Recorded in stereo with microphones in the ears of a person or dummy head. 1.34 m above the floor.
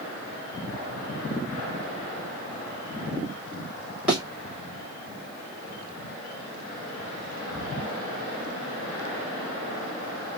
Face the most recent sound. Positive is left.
turn(degrees=-5)  # may be behind; listen again after turning